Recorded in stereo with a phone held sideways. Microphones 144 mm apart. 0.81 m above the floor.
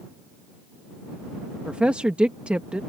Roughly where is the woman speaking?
Centre.